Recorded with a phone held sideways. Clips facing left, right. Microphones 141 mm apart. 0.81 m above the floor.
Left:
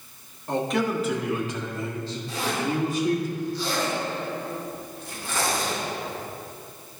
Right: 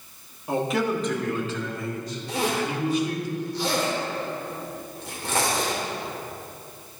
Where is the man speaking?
10° right (ahead or behind), 1.6 m; by 3.3 s 45° left (ahead or behind), 2.5 m.